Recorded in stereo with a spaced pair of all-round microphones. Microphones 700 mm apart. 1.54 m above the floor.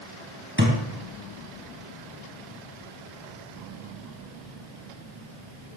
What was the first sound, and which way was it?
A thud, 15° right (ahead or behind).